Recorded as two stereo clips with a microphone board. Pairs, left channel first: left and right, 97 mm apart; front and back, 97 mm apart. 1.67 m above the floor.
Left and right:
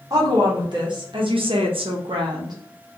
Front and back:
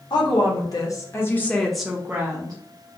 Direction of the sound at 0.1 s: 40° right.